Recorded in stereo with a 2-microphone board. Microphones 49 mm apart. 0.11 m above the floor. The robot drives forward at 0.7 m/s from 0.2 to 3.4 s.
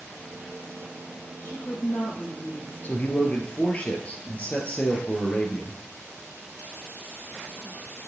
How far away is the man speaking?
About 1.7 m.